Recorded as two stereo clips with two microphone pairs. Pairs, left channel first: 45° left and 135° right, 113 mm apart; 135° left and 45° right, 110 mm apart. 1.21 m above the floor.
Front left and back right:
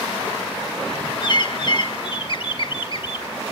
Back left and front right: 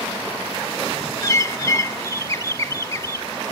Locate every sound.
1.2 s a bird: 80° left